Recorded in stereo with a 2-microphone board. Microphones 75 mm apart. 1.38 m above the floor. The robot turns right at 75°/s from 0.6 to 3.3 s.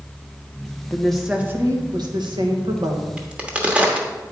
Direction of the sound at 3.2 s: 15° right (ahead or behind).